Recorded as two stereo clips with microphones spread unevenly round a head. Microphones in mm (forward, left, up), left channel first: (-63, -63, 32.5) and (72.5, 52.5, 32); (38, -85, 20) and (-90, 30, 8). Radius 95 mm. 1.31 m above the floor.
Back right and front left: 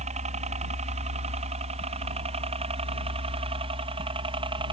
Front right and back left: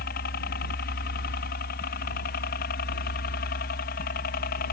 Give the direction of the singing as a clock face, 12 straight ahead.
No singing in this recording.